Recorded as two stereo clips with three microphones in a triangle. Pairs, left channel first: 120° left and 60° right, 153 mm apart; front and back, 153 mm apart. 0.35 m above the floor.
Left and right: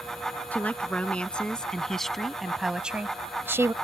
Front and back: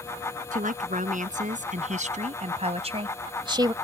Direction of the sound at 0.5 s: 160° right.